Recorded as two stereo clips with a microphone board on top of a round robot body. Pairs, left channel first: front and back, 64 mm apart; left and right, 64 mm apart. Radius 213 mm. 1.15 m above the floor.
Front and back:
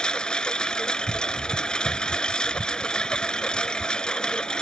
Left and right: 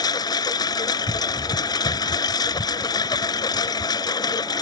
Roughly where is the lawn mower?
Left.